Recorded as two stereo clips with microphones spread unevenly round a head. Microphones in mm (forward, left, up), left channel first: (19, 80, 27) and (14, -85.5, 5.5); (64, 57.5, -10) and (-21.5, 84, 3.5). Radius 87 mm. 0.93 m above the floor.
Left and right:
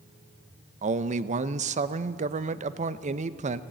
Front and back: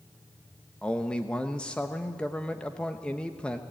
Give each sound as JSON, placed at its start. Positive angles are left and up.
{"t": 0.8, "sound": "a man speaking", "azimuth_deg": -90, "distance_m": 0.7}